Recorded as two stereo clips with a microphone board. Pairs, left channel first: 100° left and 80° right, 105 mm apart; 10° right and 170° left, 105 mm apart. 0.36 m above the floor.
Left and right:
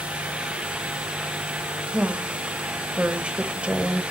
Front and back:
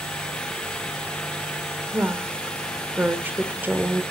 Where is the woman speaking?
145° right, 1.0 m.